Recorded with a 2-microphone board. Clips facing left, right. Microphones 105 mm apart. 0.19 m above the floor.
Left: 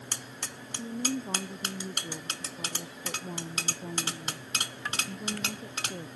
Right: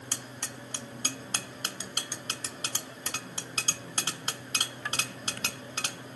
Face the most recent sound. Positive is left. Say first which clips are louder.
# left 11 dB
turn(degrees=50)  # may be behind; listen again after turning